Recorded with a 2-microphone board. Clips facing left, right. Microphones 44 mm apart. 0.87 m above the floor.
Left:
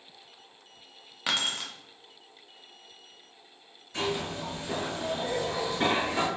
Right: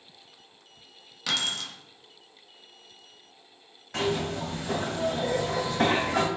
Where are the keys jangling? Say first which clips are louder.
Even; 30° left (ahead or behind), 0.7 m.